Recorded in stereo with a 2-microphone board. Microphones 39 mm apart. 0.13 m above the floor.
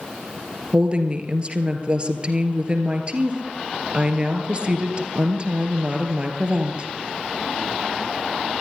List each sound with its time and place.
0.7 s a woman speaking: 30° right (ahead or behind), 2.5 m